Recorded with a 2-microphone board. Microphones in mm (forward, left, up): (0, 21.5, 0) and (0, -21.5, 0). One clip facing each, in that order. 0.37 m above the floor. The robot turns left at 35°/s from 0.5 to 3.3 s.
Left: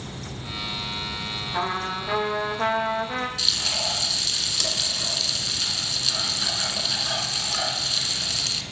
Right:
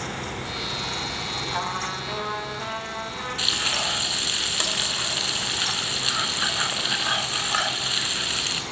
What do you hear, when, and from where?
1.5 s a trumpet: 175° right, 9.5 m; by 3.3 s 125° left, 9.5 m
3.4 s frying: 35° right (ahead or behind), 4 m